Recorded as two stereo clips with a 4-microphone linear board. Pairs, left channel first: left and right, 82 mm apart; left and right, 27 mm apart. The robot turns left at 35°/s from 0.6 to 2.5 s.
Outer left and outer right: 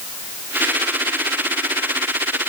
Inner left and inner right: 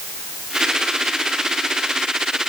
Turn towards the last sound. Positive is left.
No sound to turn to.